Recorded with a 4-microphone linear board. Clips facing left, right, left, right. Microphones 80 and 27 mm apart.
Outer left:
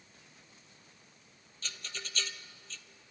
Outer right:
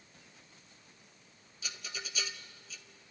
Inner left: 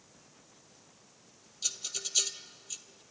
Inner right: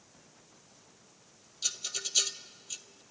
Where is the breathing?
No breathing in this recording.